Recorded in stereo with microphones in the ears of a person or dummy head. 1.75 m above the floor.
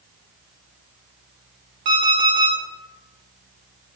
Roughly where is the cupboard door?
No cupboard door in this recording.